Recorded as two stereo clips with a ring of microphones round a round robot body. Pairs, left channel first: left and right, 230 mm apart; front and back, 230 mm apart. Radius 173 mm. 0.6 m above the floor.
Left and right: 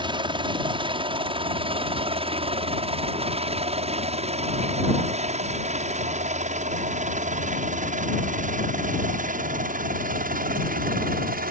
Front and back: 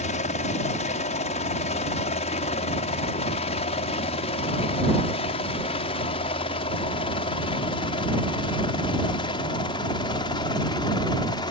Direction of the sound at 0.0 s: 35° right.